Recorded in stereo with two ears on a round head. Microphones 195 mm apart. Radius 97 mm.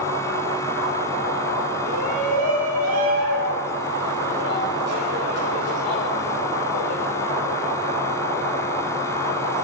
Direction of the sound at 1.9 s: 80° right.